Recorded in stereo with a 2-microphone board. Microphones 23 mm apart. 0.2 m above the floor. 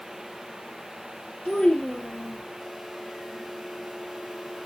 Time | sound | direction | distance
1.4 | a child speaking | 50° left (ahead or behind) | 3.5 m